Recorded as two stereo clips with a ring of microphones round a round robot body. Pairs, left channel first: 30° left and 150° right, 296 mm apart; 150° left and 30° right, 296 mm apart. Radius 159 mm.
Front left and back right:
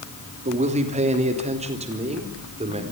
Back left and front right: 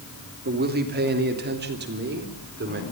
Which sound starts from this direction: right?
A man speaking, at 0.5 s.